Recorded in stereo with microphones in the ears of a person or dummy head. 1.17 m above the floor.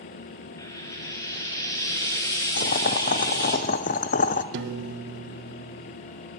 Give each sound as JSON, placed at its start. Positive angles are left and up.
{"t": 0.6, "sound": "frying", "side_deg": 25, "distance_m": 1.5}
{"t": 2.6, "sound": "boiling", "side_deg": 35, "distance_m": 0.6}
{"t": 4.5, "sound": "a piano", "side_deg": -60, "distance_m": 1.1}